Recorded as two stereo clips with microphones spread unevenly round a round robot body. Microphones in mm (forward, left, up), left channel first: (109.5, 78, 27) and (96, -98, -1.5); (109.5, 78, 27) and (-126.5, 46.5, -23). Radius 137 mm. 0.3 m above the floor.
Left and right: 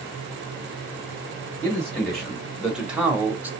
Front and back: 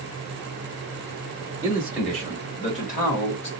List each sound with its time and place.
1.6 s a man speaking: 175° right, 1.0 m; by 3.5 s 30° right, 1.2 m